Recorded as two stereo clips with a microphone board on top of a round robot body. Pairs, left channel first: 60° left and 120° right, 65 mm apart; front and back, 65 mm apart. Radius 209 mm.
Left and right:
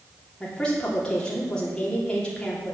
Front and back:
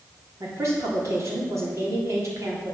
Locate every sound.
0.4 s a woman speaking: 135° left, 3.5 m